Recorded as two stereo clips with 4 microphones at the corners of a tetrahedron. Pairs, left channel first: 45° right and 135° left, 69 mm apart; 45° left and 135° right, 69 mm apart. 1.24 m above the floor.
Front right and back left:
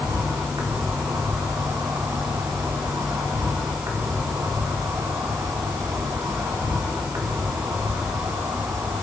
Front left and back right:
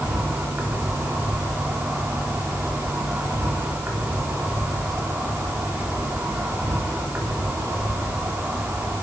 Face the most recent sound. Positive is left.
turn(degrees=160)